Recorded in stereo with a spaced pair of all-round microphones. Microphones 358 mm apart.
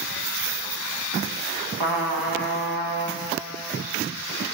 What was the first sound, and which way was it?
A trumpet, 85° right.